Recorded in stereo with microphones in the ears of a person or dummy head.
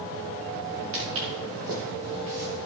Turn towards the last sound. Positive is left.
turn(degrees=-65)  # may be behind; listen again after turning